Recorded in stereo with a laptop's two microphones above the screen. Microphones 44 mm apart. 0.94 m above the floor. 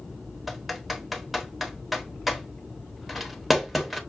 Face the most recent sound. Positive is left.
turn(degrees=-5)  # may be behind; listen again after turning